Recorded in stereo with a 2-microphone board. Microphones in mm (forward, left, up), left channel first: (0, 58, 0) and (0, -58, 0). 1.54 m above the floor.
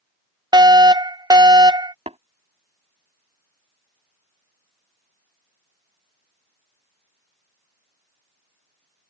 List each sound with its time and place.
0.5 s a fire alarm: 40° right (ahead or behind)
2.1 s tapping: 70° right (ahead or behind)